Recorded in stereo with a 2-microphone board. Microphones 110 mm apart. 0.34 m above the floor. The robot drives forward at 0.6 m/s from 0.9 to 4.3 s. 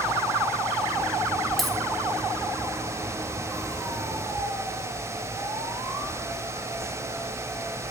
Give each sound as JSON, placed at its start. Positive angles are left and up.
{"t": 1.6, "sound": "a dropped coin", "side_deg": 0, "distance_m": 1.2}